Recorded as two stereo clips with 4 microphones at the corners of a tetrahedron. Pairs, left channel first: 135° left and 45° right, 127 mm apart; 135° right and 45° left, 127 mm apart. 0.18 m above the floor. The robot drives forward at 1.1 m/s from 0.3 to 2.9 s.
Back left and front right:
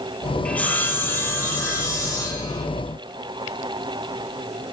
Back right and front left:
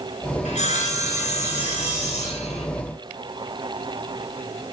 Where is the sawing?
145° right, 2 m; by 2.6 s 165° right, 4.5 m.